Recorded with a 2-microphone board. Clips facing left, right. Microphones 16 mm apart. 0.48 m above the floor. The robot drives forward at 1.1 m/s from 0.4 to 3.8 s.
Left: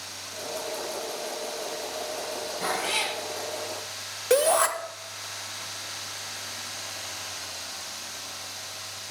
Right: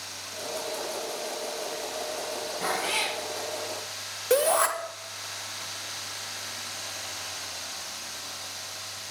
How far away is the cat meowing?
About 3.5 m.